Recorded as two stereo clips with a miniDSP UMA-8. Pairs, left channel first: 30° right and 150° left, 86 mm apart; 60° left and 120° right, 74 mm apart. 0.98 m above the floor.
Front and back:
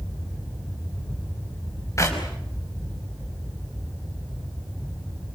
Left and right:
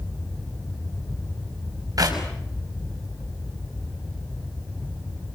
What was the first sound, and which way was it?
A clap, 85° right.